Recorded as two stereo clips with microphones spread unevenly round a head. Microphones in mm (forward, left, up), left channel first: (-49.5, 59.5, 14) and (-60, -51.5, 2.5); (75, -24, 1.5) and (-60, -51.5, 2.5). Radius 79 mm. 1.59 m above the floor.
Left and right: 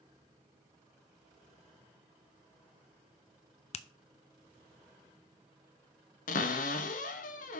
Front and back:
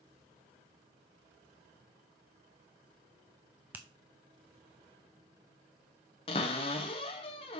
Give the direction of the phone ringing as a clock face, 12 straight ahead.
No phone ringing in this recording.